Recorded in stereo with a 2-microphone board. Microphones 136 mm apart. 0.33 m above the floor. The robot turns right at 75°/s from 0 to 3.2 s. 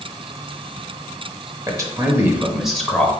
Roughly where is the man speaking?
Right.